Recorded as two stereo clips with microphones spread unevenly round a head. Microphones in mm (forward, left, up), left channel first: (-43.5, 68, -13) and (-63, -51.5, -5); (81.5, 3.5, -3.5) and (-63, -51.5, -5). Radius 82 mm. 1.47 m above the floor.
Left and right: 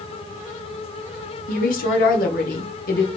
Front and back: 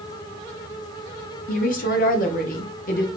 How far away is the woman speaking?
About 0.6 m.